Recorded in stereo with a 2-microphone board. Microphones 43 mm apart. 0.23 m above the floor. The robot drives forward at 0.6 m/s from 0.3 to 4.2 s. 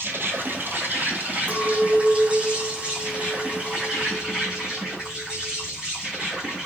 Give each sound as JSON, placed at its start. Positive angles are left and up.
{"t": 0.0, "sound": "an insect", "side_deg": -60, "distance_m": 1.1}
{"t": 1.5, "sound": "a clink", "side_deg": -45, "distance_m": 1.4}